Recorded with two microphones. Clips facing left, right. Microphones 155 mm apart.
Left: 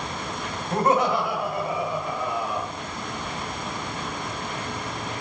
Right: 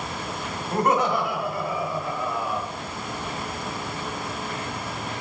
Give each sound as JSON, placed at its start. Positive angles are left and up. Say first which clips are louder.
{"t": 0.7, "sound": "laughter", "louder": "left 1 dB", "side_deg": 25, "distance_m": 1.4}